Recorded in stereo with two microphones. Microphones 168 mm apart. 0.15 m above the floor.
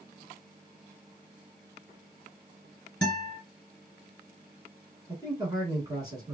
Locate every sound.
3.0 s a guitar: 5° left (ahead or behind), 1.8 m
5.1 s a man speaking: 25° right (ahead or behind), 1.2 m